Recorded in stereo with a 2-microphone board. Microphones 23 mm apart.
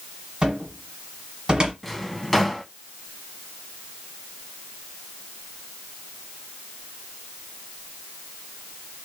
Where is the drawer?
Centre (ahead or behind), 0.6 m.